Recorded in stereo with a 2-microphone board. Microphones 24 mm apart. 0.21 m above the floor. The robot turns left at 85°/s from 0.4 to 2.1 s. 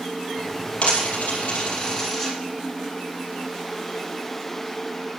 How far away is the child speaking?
I don't hear a child speaking.